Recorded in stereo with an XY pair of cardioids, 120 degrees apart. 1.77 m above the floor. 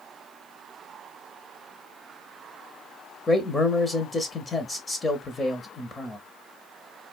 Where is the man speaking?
20° left, 0.8 m.